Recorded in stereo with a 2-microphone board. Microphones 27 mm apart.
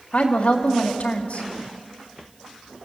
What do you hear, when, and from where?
0.1 s a woman speaking: 60° left (ahead or behind), 2 m